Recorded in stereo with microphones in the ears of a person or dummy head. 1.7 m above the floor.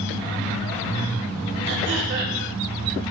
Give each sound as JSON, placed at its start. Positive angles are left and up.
{"t": 1.7, "sound": "throat clearing", "side_deg": -70, "distance_m": 1.7}